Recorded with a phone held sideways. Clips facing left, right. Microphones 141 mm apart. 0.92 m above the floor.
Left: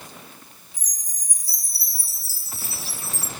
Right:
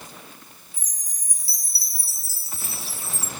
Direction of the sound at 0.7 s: 40° left (ahead or behind).